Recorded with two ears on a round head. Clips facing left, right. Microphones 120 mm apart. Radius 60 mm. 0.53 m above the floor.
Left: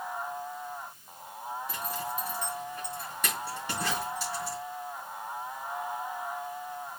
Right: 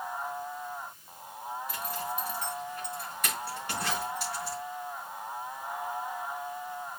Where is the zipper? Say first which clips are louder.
Right 1 dB; 80° left, 4 m.